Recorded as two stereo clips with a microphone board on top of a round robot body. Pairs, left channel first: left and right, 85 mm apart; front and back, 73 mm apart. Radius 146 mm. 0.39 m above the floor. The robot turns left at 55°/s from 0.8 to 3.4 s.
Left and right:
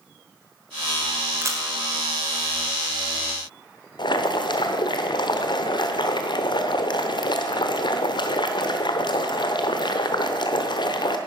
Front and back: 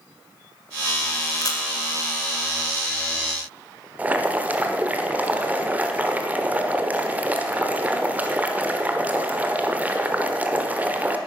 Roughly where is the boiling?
Left.